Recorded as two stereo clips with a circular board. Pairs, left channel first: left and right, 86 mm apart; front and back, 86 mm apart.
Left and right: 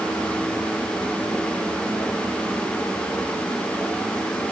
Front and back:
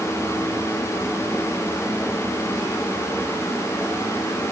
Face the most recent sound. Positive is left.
No sound to turn to.